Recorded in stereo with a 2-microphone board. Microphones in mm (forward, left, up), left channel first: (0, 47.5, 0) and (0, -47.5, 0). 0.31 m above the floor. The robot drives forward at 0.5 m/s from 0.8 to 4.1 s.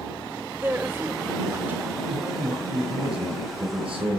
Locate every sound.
0.6 s a woman speaking: 25° right (ahead or behind), 0.9 m; by 1.9 s 20° right (ahead or behind), 1.0 m
2.0 s a man speaking: 80° right, 7 m; by 4.2 s 75° right (ahead or behind), 7.5 m